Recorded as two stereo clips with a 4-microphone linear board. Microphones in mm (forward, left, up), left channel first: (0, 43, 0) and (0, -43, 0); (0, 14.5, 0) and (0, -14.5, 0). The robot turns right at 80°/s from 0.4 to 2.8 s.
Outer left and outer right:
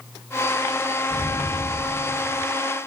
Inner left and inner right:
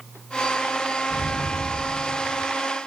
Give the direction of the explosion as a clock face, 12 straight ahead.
3 o'clock.